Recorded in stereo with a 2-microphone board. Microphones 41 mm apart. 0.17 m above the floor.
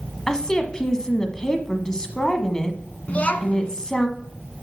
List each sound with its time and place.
0.3 s a woman speaking: 15° left (ahead or behind), 1.1 m
3.1 s a child speaking: 35° left (ahead or behind), 1.1 m